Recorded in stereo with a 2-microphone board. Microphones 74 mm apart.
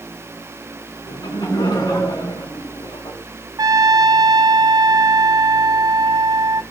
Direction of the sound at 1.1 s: 70° left (ahead or behind).